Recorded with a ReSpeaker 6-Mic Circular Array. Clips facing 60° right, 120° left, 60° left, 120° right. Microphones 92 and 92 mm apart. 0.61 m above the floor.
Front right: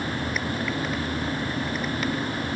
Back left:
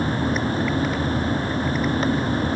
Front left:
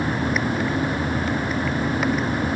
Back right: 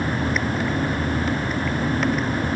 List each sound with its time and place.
Only background noise.